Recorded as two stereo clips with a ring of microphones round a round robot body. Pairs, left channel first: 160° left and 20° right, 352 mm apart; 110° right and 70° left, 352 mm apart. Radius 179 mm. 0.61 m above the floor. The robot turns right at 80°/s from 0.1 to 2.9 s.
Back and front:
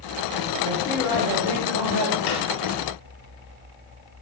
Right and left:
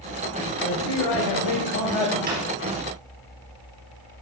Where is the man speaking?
145° right, 4 m; by 2.2 s 20° right, 4 m.